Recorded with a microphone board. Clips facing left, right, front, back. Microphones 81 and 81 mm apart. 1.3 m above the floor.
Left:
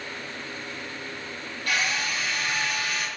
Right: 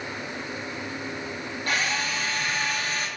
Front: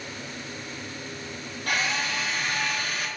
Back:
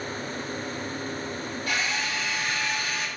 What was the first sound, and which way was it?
A drill, 35° right.